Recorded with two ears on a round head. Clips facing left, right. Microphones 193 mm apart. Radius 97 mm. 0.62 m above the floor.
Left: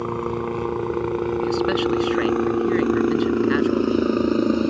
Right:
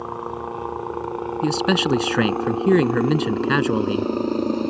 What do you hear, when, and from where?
0.0 s a helicopter: 35° left (ahead or behind); by 4.7 s 10° left (ahead or behind)
1.4 s a man speaking: 65° right (ahead or behind)